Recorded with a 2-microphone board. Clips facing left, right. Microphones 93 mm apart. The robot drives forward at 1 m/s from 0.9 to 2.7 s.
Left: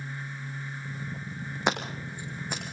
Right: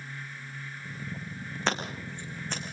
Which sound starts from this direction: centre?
Scissors, at 1.7 s.